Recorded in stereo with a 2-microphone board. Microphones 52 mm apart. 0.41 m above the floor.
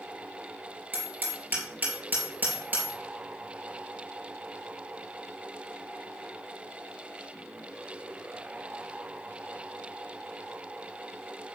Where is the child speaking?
No child speaking in this recording.